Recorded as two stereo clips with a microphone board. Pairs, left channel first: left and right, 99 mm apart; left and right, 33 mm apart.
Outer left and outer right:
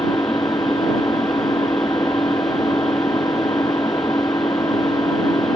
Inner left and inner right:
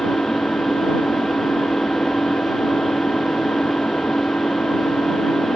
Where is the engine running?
35° left (ahead or behind).